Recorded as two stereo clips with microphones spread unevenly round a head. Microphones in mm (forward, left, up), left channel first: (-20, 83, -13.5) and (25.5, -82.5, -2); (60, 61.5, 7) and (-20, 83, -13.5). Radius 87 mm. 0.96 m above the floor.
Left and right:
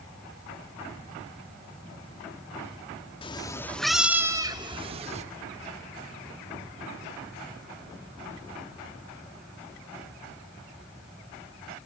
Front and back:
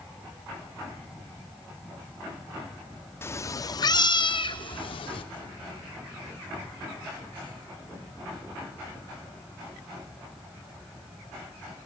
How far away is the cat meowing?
About 0.8 m.